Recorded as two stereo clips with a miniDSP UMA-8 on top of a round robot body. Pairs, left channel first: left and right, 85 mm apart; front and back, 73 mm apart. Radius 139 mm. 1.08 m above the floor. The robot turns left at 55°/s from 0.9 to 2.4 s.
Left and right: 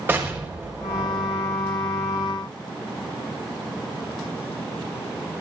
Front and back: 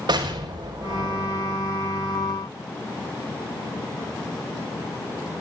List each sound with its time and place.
0.1 s an explosion: 155° right, 5 m; by 1.6 s 165° left, 5 m